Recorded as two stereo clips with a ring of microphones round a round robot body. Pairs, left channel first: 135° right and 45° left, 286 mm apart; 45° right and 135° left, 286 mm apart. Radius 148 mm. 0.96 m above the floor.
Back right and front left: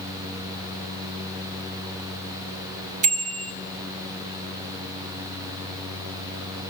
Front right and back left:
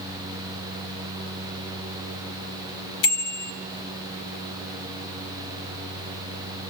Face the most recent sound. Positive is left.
turn(degrees=-20)